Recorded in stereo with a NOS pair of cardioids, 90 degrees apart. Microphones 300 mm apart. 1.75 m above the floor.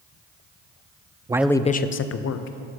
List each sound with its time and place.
1.3 s a man speaking: 15° right, 0.5 m; by 2.6 s 60° left, 1.0 m